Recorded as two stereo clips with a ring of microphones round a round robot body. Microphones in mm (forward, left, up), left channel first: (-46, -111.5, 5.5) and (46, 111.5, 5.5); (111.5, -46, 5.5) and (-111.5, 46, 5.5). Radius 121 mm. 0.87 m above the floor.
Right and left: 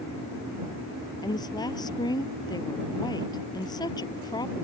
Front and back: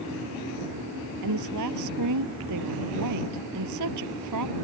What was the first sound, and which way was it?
A woman speaking, 170° left.